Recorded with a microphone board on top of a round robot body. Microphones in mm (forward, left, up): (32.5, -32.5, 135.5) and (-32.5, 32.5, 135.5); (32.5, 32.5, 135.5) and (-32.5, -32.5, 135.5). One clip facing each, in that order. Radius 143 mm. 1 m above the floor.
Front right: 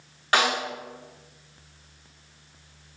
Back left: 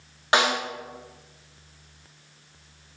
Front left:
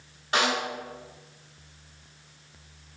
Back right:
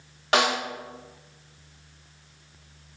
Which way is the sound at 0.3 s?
155° right.